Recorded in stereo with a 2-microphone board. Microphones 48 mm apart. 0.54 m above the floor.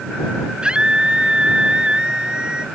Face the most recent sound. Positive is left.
turn(degrees=-20)  # may be behind; listen again after turning